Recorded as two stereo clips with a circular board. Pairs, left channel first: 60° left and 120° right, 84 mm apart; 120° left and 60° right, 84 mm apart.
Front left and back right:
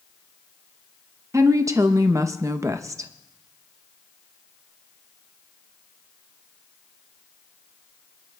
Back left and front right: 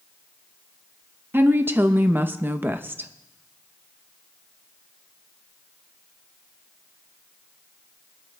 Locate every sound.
1.3 s a woman speaking: 105° right, 0.7 m